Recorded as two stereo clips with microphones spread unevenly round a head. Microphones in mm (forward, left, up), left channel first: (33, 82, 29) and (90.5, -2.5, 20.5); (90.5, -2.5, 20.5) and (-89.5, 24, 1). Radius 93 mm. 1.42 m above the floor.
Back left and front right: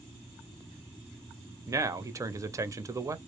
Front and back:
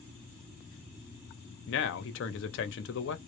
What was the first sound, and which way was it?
A man speaking, 5° left.